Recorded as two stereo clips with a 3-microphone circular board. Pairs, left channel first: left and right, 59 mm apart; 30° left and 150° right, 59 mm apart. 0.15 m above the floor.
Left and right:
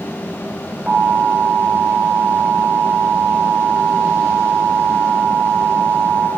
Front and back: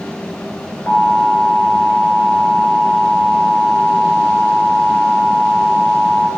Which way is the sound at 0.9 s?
20° right.